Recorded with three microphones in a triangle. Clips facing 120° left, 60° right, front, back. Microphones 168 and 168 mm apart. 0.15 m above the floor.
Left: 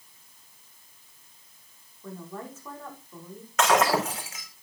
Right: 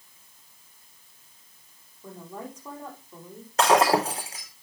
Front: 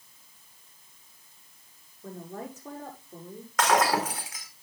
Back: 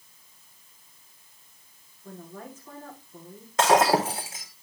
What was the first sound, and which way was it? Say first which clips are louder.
A woman speaking: even, front 3 dB; 15° left.